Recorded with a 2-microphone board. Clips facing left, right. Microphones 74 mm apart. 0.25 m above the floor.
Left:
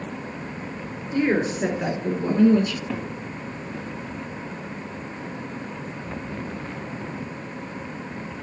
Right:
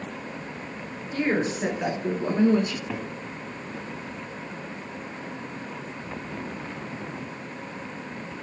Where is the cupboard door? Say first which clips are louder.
Left 3 dB; 5° right (ahead or behind), 1.3 m.